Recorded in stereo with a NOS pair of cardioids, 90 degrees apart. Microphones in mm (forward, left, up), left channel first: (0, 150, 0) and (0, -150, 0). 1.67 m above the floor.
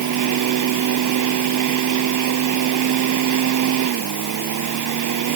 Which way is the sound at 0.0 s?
70° right.